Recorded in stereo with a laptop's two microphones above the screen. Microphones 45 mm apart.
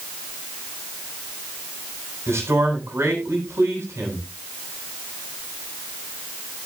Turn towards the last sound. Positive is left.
turn(degrees=-80)